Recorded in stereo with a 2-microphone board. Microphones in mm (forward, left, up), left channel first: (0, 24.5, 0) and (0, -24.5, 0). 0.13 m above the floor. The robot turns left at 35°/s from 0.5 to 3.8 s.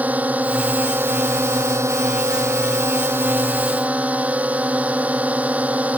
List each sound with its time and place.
0.0 s a drone: 35° right; by 6.0 s 150° right